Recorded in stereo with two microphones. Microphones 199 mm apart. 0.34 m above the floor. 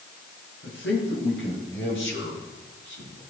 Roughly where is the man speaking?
Left.